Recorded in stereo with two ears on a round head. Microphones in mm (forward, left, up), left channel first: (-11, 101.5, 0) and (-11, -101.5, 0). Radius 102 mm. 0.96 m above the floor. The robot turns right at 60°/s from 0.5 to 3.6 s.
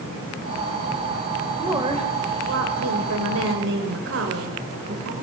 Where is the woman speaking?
175° right, 4 m; by 5.1 s 55° right, 4 m.